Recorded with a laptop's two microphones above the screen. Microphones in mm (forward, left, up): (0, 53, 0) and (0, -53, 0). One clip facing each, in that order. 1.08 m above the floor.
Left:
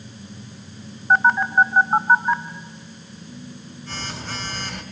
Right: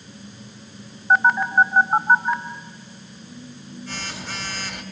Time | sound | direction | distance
1.1 | a phone buzzing | 5° right (ahead or behind) | 1.7 m